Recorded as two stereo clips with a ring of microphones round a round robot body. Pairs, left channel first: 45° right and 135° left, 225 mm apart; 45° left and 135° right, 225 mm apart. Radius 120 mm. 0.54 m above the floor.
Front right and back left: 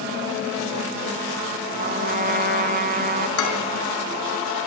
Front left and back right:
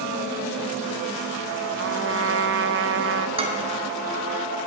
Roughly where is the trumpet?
Behind.